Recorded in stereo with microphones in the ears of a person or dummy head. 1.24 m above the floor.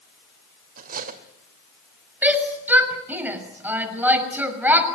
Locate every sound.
0.8 s cutlery clinking: 50° right (ahead or behind), 2.5 m
2.2 s a shout: 10° right (ahead or behind), 6 m